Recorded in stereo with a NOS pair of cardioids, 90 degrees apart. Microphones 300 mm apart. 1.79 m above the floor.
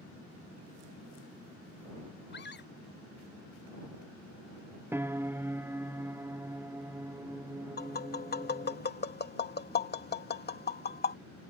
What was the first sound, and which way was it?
A scream, 35° left.